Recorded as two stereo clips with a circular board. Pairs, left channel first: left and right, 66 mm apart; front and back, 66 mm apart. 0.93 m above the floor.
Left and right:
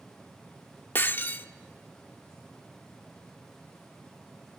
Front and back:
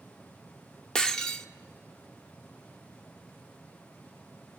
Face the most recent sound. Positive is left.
turn(degrees=70)